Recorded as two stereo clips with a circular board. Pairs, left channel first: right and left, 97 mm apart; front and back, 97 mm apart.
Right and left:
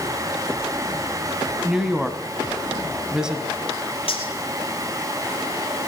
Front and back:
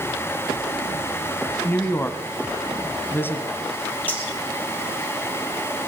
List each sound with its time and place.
1.6 s a woman speaking: 20° left, 1.0 m
4.1 s cutlery clinking: 75° right, 3 m